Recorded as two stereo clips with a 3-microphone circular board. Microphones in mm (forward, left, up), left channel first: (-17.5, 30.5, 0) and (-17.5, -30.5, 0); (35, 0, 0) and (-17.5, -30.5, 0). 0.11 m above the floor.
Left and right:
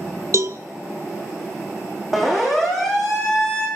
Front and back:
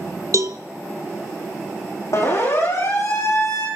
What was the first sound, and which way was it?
A cowbell, 125° right.